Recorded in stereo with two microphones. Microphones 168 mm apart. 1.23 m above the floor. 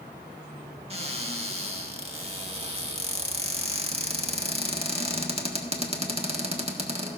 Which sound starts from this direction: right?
A cupboard door, at 0.9 s.